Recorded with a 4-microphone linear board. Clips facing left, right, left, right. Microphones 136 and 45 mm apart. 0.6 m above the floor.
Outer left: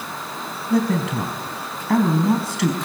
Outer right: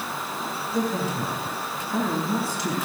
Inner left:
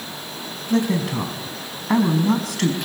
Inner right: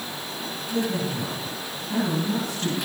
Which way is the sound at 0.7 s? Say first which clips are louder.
Outer left 7 dB, inner left 6 dB; 80° left.